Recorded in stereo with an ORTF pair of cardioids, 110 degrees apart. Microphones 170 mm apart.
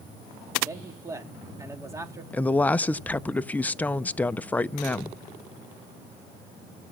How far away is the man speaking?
About 2.5 m.